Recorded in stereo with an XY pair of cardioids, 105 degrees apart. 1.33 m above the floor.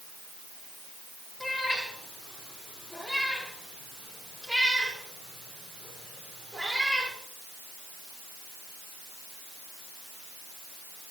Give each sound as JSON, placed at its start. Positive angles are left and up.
{"t": 1.4, "sound": "a cat meowing", "azimuth_deg": 15, "distance_m": 5.5}